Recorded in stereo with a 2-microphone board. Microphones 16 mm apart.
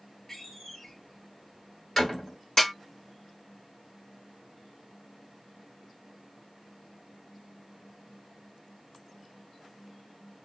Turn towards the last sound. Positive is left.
turn(degrees=35)  # may be behind; listen again after turning